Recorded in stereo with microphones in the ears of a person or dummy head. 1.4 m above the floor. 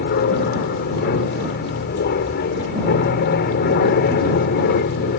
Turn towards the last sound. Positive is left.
turn(degrees=50)  # may be behind; listen again after turning